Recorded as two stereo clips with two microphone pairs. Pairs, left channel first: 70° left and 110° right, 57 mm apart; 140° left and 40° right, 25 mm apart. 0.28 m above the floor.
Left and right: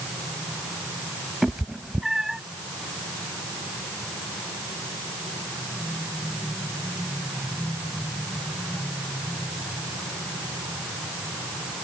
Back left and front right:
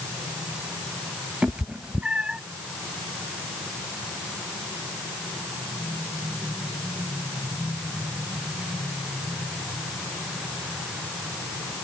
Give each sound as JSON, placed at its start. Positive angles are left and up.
{"t": 1.4, "sound": "a cat meowing", "azimuth_deg": -35}